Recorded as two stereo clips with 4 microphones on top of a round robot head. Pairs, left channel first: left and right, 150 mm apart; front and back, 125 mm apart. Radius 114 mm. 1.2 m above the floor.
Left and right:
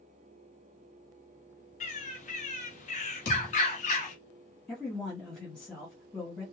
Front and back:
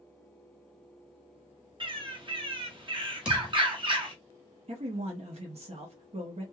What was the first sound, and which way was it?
A bird, 130° left.